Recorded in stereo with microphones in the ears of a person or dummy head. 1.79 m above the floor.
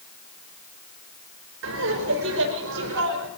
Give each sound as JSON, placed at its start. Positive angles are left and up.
{"t": 1.6, "sound": "laughter", "side_deg": -70, "distance_m": 5.0}